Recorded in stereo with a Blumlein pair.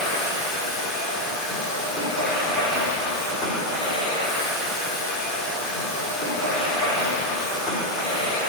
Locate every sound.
0.0 s a machine running: 25° left, 3.5 m